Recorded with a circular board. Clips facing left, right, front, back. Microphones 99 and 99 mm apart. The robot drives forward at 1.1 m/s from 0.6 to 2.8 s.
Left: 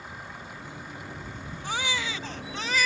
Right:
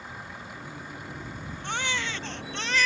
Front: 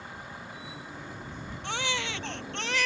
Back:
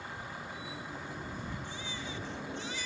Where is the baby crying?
5° left.